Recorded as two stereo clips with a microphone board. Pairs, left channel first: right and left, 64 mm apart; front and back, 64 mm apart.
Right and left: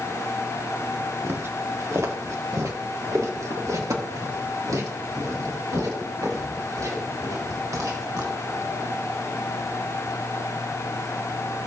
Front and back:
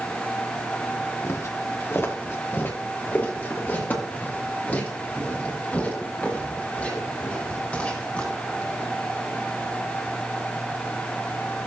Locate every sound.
1.2 s footsteps: 40° left, 1.4 m; by 8.9 s 75° left, 7 m